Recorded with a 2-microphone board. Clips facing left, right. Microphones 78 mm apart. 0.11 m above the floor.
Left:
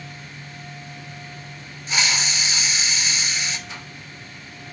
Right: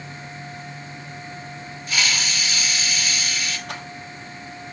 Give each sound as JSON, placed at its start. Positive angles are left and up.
{"t": 1.9, "sound": "a hiss", "side_deg": 25, "distance_m": 2.5}
{"t": 3.7, "sound": "a rattle", "side_deg": -70, "distance_m": 4.5}